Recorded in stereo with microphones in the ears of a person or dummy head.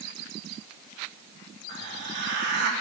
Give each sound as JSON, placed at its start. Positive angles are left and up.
{"t": 1.7, "sound": "a hiss", "side_deg": -65, "distance_m": 2.5}